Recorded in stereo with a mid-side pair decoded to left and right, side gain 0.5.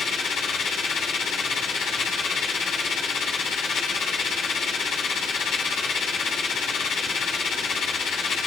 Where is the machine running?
60° left, 9 m.